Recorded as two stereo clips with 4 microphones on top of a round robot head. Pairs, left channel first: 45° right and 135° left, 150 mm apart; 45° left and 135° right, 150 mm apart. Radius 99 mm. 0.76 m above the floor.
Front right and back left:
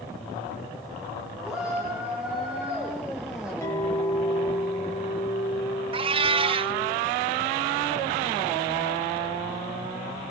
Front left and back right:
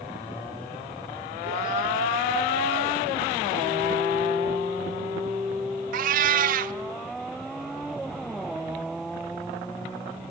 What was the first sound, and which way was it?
A shout, 140° right.